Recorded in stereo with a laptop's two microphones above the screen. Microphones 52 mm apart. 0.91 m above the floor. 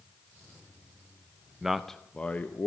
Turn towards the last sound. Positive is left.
turn(degrees=40)  # may be behind; listen again after turning